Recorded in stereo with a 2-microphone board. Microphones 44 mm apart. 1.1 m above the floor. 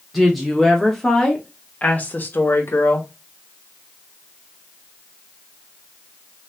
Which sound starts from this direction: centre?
A woman speaking, at 0.1 s.